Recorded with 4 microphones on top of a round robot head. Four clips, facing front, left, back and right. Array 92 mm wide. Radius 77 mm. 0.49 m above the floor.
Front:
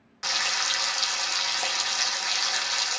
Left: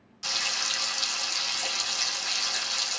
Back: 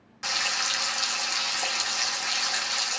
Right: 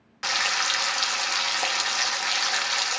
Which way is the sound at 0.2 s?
85° right.